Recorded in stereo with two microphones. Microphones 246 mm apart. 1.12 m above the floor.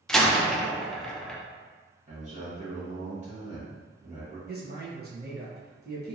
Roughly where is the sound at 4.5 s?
Right.